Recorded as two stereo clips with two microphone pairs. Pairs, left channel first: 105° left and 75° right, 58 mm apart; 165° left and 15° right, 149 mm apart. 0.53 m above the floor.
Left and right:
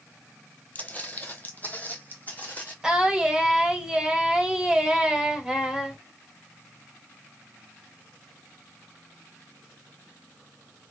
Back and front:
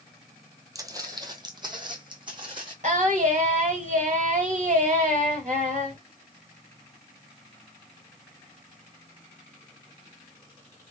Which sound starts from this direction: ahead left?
Footsteps, at 0.8 s.